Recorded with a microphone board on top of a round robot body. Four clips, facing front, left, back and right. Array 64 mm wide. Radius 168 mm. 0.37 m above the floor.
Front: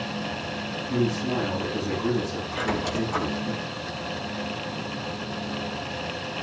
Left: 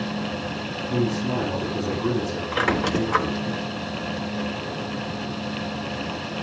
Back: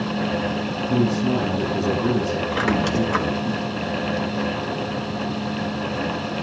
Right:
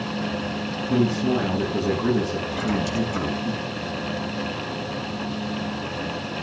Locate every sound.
0.9 s a man speaking: 130° right, 7.5 m
2.5 s a squeak: 125° left, 1.4 m